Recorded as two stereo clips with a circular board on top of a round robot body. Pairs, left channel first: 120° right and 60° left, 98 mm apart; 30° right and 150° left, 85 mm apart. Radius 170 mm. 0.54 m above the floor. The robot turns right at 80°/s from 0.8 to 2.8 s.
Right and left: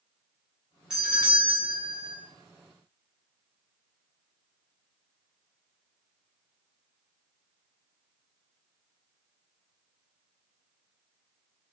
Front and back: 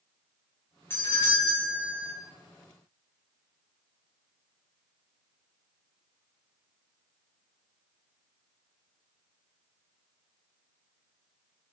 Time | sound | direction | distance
0.9 | a doorbell | 15° right | 1.7 m